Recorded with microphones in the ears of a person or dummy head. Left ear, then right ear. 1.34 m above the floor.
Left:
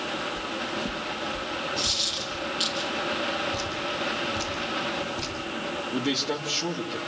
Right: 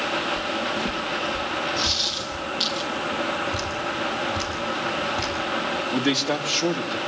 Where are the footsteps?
10° right (ahead or behind), 2 m; by 2.5 s 30° right (ahead or behind), 3 m.